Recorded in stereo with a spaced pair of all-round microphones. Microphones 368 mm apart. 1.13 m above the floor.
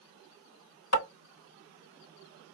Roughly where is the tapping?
Left.